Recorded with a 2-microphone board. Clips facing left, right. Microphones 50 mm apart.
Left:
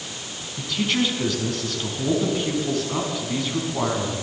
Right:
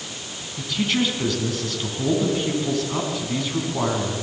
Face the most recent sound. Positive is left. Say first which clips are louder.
# even
turn(degrees=0)  # may be behind; listen again after turning